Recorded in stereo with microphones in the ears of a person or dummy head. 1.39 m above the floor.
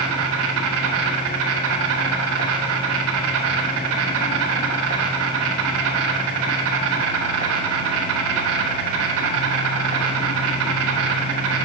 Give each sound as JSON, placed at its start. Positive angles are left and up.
{"t": 0.0, "sound": "an insect", "side_deg": -70, "distance_m": 1.0}